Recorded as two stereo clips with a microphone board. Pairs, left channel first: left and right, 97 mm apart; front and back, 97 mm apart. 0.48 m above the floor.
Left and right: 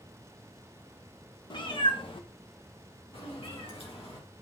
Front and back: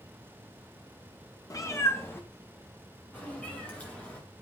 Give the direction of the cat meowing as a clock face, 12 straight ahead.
10 o'clock.